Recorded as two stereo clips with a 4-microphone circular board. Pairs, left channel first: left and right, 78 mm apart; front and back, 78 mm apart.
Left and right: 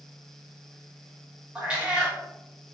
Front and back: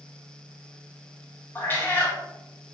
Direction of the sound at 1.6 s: 30° right.